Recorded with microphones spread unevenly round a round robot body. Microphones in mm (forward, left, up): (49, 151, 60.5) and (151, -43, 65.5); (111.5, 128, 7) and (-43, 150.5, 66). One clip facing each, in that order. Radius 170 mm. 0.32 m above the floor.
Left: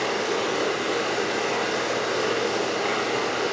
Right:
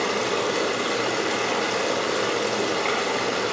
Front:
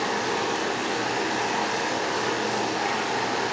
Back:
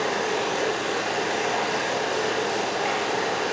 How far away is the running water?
About 2 m.